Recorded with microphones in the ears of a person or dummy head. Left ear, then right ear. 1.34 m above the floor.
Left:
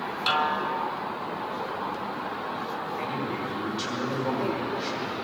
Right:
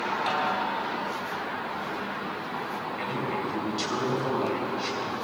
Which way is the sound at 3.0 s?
20° right (ahead or behind).